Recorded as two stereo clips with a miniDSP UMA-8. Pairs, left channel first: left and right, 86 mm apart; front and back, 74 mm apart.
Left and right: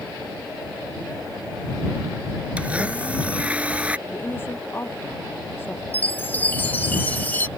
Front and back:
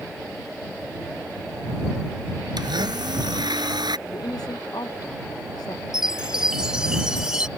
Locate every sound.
2.6 s a blender: 165° right
4.1 s a woman speaking: 25° left
5.9 s a chime: 115° left